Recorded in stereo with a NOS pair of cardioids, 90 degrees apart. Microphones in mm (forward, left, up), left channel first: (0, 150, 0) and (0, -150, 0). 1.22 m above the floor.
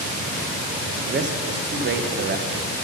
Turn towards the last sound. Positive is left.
turn(degrees=-35)